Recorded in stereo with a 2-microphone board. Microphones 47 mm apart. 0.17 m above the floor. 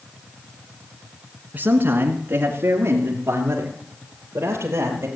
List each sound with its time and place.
1.5 s a man speaking: 40° right (ahead or behind), 1.6 m; by 5.1 s 60° right (ahead or behind), 3.5 m